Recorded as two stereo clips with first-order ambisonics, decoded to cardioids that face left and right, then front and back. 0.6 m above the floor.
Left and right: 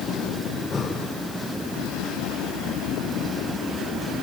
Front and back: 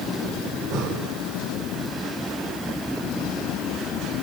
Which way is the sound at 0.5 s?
160° left.